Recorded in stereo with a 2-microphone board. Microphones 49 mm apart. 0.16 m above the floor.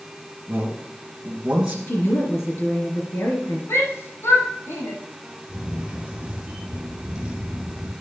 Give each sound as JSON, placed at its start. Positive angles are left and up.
{"t": 0.5, "sound": "a man speaking", "side_deg": -10, "distance_m": 2.0}
{"t": 1.9, "sound": "a woman speaking", "side_deg": 60, "distance_m": 3.0}
{"t": 3.7, "sound": "a shout", "side_deg": 60, "distance_m": 6.5}
{"t": 5.5, "sound": "a camera shutter", "side_deg": -10, "distance_m": 3.0}